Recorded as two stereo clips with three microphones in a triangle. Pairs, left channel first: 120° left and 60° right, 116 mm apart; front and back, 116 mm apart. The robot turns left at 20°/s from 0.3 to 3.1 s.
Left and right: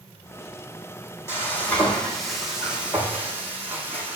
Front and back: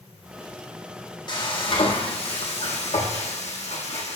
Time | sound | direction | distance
1.3 | frying | 50° left | 4 m